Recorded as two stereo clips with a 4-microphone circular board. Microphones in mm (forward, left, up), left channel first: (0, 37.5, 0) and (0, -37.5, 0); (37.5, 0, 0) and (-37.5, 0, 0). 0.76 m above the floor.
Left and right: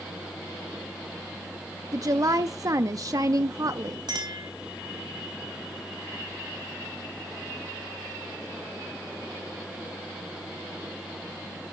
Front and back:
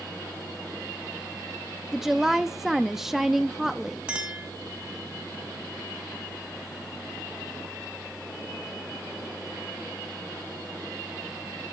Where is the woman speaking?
95° right, 0.7 m.